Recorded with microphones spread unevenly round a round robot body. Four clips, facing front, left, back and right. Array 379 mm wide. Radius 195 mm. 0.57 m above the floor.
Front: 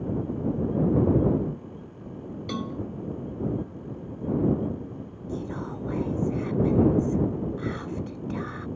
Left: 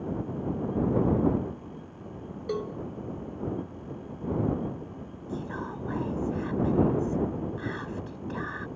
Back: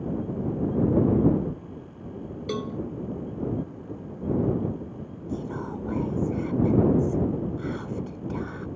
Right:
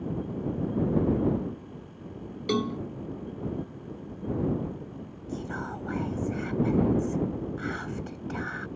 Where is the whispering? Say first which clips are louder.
Even, back 1 dB; 35° right.